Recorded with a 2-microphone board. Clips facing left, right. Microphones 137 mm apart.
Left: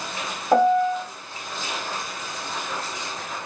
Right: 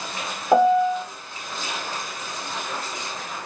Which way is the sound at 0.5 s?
10° right (ahead or behind).